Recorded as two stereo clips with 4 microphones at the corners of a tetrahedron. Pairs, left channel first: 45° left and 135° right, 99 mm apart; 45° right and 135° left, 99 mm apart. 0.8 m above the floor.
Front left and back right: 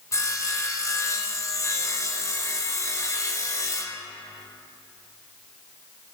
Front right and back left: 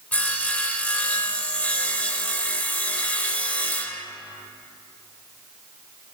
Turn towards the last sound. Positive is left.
turn(degrees=20)